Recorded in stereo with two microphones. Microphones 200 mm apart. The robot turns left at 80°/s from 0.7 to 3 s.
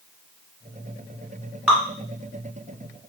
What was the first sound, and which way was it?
Dripping, 10° right (ahead or behind).